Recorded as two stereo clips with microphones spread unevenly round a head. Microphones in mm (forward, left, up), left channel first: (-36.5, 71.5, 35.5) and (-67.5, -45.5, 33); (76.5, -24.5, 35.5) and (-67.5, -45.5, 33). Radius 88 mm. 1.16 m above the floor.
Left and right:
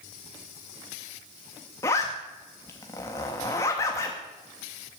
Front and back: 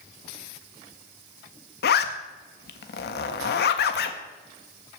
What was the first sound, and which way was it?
A zipper, 5° left.